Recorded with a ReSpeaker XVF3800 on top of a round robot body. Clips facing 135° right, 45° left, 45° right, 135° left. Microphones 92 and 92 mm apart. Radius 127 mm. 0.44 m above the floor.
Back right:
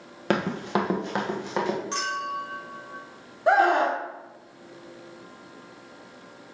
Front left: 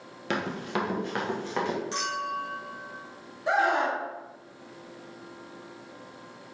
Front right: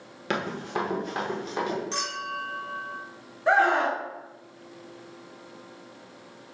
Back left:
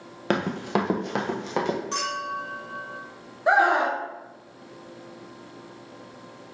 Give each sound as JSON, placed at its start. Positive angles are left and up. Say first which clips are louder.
{"t": 0.3, "sound": "running footsteps", "louder": "back right 5 dB, back left 5 dB", "azimuth_deg": -175, "distance_m": 0.5}
{"t": 1.9, "sound": "a clink", "louder": "back right 1 dB, back left 3 dB", "azimuth_deg": 175, "distance_m": 3.5}
{"t": 3.5, "sound": "a scream", "louder": "back right 5 dB, back left 2 dB", "azimuth_deg": -155, "distance_m": 1.5}